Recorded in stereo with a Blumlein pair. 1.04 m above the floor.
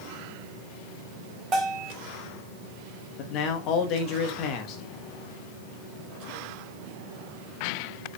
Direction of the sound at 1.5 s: 25° right.